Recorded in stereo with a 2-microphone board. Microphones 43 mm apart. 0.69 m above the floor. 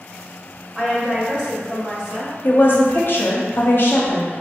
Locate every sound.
0.8 s a woman speaking: 20° right (ahead or behind), 1.9 m
2.4 s a woman speaking: 55° left (ahead or behind), 1.0 m